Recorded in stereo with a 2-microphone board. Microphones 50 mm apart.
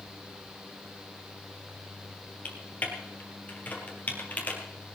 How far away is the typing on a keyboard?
About 3.5 m.